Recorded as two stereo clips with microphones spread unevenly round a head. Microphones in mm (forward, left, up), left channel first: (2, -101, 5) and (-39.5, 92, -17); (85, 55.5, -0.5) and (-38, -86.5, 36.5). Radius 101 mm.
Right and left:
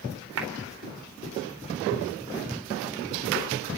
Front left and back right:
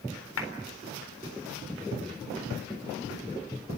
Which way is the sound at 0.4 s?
80° left.